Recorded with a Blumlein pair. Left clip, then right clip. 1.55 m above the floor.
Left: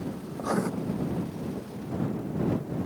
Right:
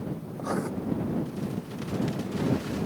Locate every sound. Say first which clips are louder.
0.3 s writing: left 2 dB; 10° left